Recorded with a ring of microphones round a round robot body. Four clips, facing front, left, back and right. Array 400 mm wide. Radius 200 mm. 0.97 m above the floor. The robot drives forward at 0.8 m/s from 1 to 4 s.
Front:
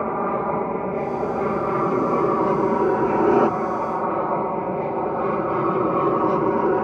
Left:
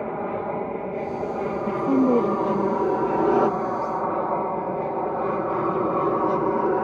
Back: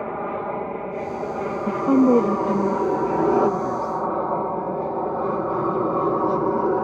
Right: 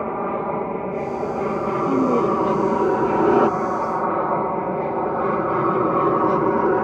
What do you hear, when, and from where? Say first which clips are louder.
0.0 s an aircraft: right 4 dB, front 4 dB; 35° right; by 6.8 s 60° right
1.7 s a woman speaking: even, back 8 dB; 165° left; by 4.0 s 175° left